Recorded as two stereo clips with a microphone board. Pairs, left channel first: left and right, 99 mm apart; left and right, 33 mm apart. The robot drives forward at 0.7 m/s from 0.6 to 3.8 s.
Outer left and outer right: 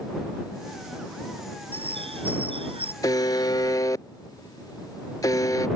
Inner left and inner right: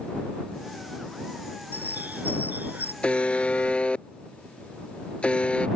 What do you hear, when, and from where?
1.7 s a bird: 75° right (ahead or behind)
3.0 s a buzzer: 40° left (ahead or behind)